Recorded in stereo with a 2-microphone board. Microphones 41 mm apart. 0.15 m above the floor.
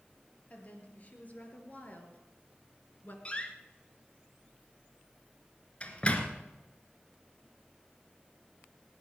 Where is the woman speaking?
40° left (ahead or behind), 3.5 m; by 3.1 s 45° left (ahead or behind), 2 m.